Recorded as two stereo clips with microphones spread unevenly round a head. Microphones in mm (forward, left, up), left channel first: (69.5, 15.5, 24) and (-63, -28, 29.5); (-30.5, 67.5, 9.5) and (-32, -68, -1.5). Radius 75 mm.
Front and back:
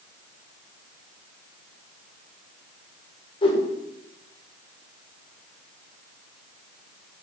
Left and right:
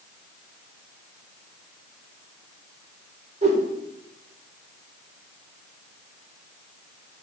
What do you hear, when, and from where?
3.4 s a whoosh: 35° right, 1.6 m